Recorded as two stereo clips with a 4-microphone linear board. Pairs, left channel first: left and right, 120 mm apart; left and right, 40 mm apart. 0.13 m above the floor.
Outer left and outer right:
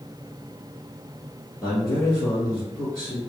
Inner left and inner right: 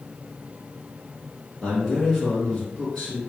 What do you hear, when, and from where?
1.6 s a man speaking: 20° left (ahead or behind), 1.8 m